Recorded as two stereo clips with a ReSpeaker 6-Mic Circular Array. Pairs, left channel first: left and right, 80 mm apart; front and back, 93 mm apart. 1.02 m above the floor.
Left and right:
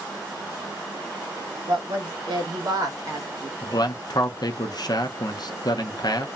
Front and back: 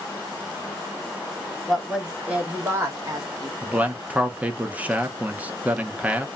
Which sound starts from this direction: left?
A man speaking, at 3.6 s.